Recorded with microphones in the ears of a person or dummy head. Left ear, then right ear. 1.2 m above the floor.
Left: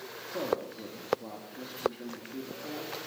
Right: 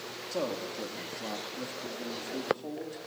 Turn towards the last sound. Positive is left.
turn(degrees=-70)  # may be behind; listen again after turning